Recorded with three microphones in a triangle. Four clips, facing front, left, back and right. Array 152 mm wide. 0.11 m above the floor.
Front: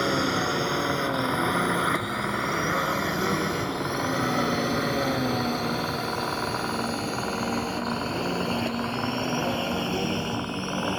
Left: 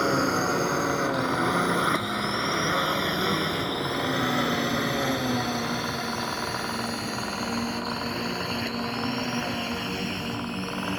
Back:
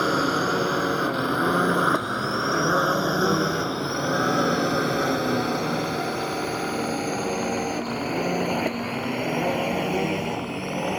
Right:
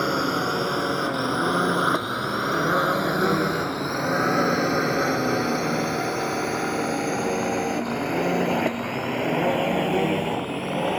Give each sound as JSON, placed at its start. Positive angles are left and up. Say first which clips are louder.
{"t": 0.0, "sound": "a drone", "louder": "even, back 3 dB", "azimuth_deg": -175}